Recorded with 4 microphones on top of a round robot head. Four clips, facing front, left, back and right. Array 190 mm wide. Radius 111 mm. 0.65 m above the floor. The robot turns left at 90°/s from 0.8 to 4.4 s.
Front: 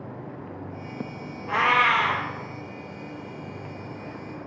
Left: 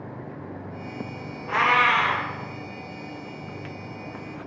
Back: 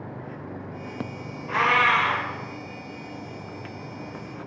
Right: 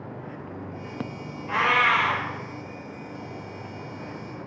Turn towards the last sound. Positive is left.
turn(degrees=130)